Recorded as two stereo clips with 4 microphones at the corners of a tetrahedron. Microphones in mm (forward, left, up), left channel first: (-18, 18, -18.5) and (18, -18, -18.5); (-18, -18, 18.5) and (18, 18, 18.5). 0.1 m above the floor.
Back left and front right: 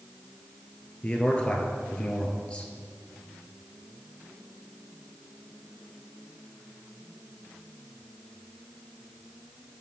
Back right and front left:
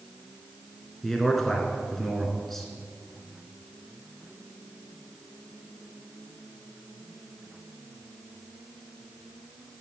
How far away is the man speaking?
About 1.3 m.